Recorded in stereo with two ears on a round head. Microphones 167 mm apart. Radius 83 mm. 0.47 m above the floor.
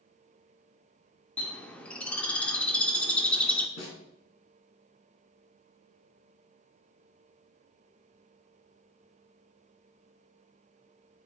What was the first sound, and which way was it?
A bird, 5° left (ahead or behind).